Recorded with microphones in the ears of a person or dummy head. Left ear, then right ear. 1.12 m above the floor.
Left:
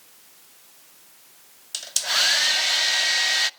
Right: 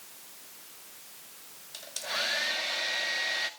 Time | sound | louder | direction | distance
1.7 | a hair dryer | left 10 dB | 45° left (ahead or behind) | 0.6 m